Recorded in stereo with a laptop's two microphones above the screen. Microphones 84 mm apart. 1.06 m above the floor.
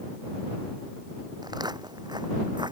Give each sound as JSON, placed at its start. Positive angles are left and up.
{"t": 1.4, "sound": "footsteps", "side_deg": -60}